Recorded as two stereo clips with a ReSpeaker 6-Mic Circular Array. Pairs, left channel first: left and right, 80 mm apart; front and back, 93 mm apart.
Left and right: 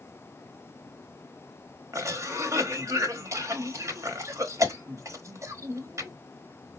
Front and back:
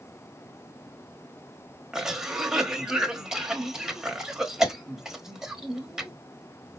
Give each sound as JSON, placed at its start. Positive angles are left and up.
{"t": 1.9, "sound": "a cough", "azimuth_deg": -100, "distance_m": 1.1}